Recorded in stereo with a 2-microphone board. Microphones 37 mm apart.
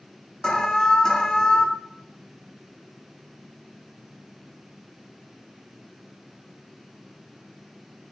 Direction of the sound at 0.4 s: 20° left (ahead or behind).